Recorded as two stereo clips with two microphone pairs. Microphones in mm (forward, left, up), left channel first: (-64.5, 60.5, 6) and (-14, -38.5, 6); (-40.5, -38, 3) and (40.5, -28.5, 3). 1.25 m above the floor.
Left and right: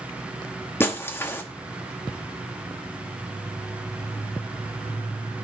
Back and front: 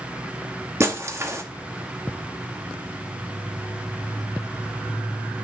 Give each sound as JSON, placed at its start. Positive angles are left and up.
{"t": 0.8, "sound": "breaking glass", "azimuth_deg": 55, "distance_m": 1.0}